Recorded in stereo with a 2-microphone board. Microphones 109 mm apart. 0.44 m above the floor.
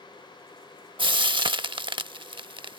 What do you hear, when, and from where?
1.0 s frying: 50° right (ahead or behind)